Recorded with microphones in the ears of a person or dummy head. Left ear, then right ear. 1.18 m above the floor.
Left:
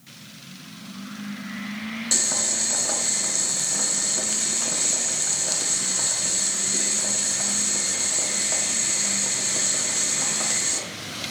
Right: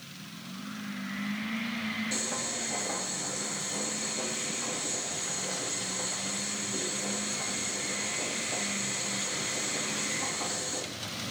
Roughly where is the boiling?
Left.